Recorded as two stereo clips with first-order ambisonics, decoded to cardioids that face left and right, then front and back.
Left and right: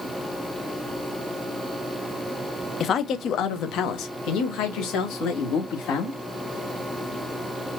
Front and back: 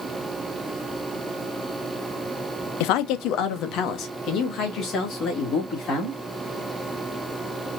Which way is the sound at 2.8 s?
25° left.